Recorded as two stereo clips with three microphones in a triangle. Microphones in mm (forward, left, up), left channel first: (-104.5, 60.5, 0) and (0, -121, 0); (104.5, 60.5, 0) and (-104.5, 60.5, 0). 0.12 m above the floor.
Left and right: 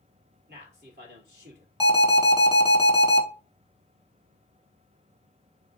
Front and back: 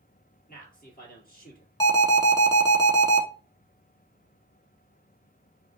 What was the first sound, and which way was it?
A man speaking, 35° right.